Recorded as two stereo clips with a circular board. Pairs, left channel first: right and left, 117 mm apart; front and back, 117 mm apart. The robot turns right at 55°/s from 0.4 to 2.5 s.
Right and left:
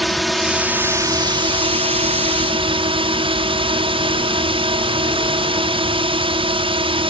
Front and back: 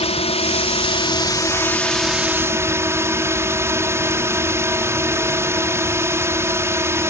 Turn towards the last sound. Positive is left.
turn(degrees=115)